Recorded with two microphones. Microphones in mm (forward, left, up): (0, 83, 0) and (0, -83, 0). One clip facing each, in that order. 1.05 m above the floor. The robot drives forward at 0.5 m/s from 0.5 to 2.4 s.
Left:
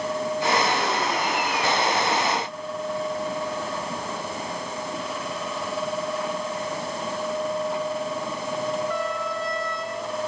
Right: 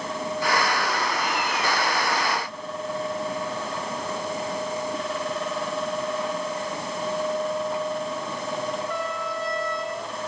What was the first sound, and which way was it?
Only background noise.